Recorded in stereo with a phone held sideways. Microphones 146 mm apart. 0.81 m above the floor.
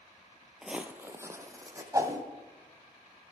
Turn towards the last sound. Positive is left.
turn(degrees=-25)  # may be behind; listen again after turning